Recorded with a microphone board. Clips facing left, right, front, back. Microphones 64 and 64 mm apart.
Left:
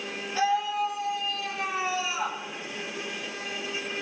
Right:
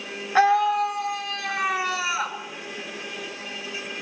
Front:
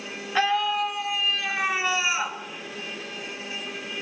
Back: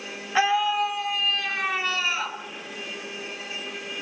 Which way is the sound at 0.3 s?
100° right.